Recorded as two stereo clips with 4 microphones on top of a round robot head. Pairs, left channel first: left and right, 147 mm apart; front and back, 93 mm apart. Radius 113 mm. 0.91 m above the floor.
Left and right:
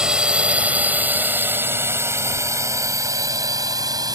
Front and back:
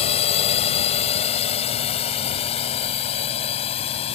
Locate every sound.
0.0 s a drone: 5° right; by 4.1 s 25° right